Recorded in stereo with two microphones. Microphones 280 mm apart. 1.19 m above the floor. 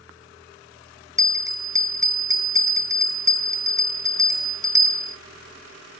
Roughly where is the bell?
Centre.